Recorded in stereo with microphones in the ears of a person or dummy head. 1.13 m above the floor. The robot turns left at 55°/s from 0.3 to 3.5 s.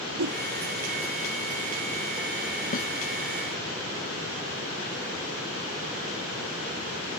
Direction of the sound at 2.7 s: 45° left (ahead or behind).